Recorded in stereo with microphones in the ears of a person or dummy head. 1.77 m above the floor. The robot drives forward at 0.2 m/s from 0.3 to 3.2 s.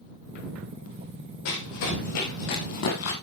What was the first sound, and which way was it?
Running footsteps, 70° left (ahead or behind).